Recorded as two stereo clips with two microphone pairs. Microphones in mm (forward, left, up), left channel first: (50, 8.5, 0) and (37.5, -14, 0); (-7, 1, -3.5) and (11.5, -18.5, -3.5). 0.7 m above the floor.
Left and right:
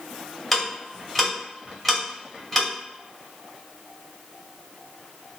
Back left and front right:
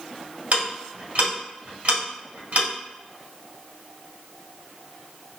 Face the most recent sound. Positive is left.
turn(degrees=-20)